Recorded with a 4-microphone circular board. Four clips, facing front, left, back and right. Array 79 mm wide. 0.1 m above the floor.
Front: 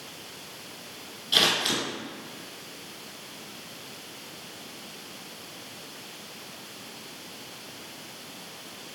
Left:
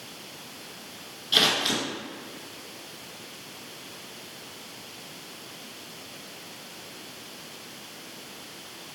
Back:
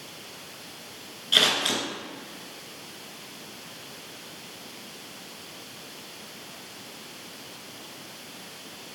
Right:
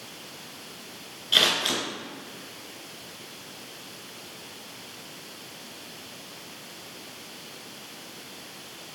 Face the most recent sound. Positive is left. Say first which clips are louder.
# even, back 1 dB
turn(degrees=-140)